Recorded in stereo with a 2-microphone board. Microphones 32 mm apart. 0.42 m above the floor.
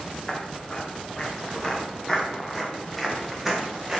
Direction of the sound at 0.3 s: 30° left (ahead or behind).